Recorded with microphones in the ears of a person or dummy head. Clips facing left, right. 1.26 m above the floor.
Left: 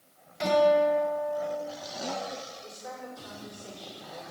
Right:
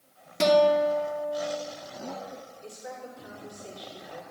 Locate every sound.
0.4 s a guitar: 65° right (ahead or behind), 1.8 m
2.6 s a woman speaking: 25° right (ahead or behind), 5 m